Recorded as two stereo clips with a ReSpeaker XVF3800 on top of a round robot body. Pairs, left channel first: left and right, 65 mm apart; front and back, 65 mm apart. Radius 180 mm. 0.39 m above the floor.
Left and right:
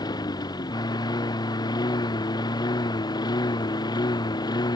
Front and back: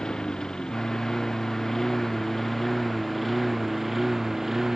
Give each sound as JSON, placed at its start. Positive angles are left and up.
{"t": 0.0, "sound": "a lawn mower", "azimuth_deg": 80}